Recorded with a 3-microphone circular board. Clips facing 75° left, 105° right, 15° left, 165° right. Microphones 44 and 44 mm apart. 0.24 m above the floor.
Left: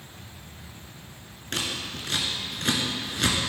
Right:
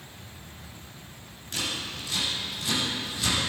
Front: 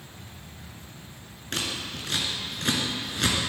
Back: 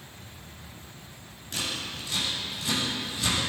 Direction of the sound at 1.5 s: 45° left.